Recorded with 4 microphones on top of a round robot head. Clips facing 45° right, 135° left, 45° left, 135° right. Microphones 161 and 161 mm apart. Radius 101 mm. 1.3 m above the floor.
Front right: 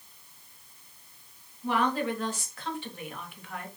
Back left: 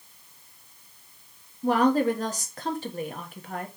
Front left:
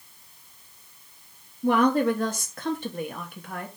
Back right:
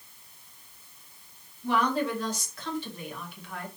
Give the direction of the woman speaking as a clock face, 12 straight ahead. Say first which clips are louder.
Back left 7 dB, front left 6 dB; 9 o'clock.